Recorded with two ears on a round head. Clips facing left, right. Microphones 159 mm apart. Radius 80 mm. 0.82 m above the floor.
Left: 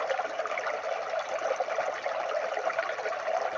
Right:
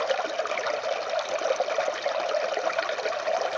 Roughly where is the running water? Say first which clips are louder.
Right 4 dB; right.